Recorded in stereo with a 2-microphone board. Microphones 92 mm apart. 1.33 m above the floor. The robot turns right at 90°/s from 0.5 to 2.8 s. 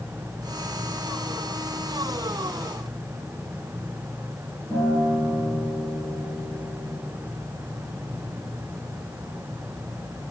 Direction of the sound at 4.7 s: 40° left (ahead or behind).